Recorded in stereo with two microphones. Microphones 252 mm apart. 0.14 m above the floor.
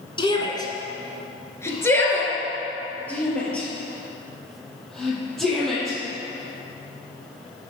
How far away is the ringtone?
No ringtone in this recording.